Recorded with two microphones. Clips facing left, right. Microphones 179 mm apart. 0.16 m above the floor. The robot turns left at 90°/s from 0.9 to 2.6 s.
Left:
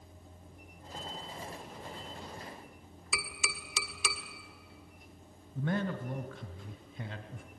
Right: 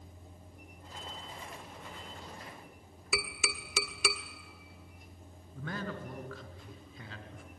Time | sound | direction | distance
3.1 | tapping | 60° right (ahead or behind) | 1.3 m
5.5 | a man speaking | 25° left (ahead or behind) | 1.4 m